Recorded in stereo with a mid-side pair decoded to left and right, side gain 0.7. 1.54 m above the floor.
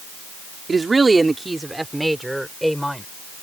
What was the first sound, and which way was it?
A woman speaking, 20° right.